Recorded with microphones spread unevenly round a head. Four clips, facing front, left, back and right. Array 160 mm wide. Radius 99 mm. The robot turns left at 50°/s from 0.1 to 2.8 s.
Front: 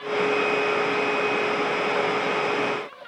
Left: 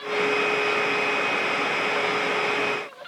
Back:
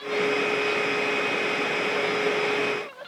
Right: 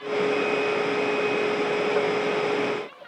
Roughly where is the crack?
No crack in this recording.